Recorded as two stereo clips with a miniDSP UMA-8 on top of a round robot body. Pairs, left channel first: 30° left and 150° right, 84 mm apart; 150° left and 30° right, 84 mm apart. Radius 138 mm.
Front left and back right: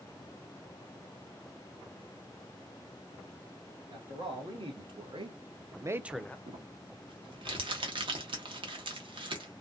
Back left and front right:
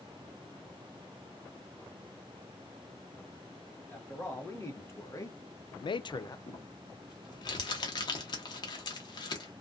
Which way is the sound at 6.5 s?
175° right.